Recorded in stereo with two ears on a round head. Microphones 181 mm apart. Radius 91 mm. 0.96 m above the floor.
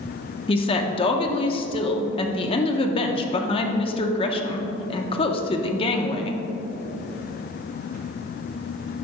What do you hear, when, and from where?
0.5 s a woman speaking: 25° left (ahead or behind), 0.7 m